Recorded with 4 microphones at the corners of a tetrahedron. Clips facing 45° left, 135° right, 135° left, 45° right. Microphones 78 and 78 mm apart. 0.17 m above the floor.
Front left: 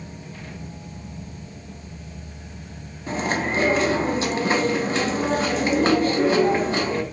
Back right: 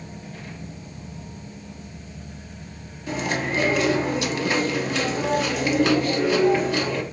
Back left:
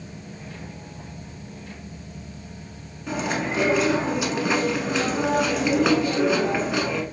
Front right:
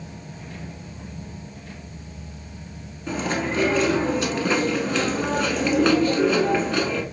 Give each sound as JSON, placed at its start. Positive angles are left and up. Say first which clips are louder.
{"t": 3.1, "sound": "chewing", "louder": "front left 2 dB, front right 1 dB", "azimuth_deg": 60, "distance_m": 0.7}